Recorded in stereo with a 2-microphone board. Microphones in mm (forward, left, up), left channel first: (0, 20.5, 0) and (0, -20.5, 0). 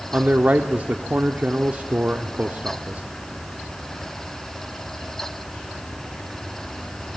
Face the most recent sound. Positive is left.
turn(degrees=-40)  # may be behind; listen again after turning